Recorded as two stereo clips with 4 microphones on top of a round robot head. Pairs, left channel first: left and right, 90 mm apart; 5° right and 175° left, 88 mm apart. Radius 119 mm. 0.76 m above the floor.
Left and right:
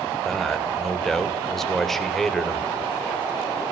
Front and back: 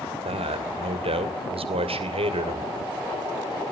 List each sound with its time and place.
0.2 s a man speaking: 175° left, 2.5 m